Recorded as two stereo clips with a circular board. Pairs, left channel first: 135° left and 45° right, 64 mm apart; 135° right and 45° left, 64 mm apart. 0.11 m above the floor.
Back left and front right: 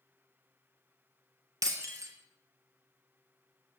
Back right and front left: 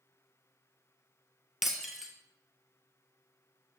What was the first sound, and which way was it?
Breaking glass, 40° right.